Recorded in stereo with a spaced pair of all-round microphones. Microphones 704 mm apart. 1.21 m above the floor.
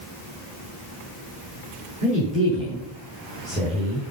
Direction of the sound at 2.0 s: 10° right (ahead or behind).